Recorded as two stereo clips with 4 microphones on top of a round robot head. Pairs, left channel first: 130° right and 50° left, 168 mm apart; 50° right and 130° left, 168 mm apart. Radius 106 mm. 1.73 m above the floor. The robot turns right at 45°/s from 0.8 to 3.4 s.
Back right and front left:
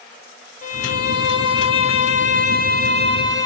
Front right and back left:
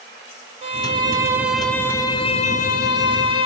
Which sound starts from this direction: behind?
A violin, at 0.6 s.